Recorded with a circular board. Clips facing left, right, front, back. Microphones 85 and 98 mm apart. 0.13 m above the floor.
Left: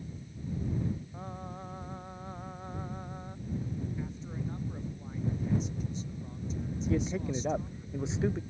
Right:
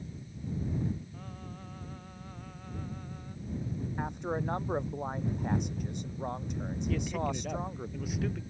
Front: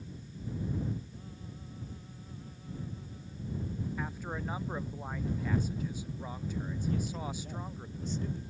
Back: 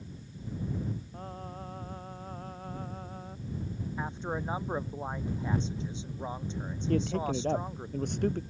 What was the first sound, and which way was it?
Singing, 150° left.